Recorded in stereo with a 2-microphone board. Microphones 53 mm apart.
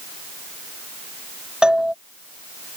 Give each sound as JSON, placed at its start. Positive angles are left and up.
{"t": 1.6, "sound": "a doorbell", "side_deg": -15}